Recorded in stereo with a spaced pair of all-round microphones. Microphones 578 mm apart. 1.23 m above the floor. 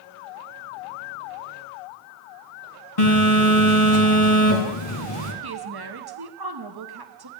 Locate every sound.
3.0 s a phone buzzing: 70° left (ahead or behind), 2 m
5.4 s a woman speaking: 45° right (ahead or behind), 0.9 m